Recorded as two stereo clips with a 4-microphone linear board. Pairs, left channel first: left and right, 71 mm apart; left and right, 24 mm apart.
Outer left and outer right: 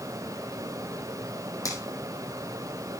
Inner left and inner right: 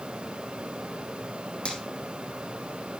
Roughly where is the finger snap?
Left.